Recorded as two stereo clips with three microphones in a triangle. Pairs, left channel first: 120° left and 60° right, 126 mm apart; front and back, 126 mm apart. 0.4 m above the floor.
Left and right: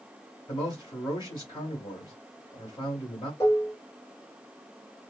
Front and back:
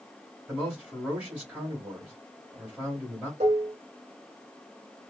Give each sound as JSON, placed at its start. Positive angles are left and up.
{"t": 0.5, "sound": "a man speaking", "azimuth_deg": 115, "distance_m": 1.7}
{"t": 3.4, "sound": "dishes clattering", "azimuth_deg": -175, "distance_m": 1.2}